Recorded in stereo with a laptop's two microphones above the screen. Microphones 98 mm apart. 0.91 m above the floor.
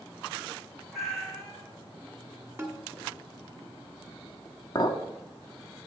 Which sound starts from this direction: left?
A clink, at 4.8 s.